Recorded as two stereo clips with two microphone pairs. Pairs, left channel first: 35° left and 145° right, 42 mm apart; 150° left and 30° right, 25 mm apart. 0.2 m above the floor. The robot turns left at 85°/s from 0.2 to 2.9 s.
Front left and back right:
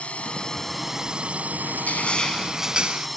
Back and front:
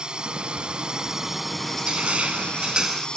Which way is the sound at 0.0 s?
5° right.